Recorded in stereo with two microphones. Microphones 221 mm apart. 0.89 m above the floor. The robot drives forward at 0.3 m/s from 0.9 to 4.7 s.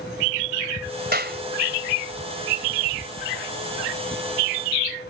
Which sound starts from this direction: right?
A clap, at 1.1 s.